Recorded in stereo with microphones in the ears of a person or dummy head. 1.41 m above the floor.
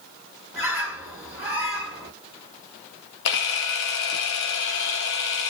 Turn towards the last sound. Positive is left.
turn(degrees=70)  # may be behind; listen again after turning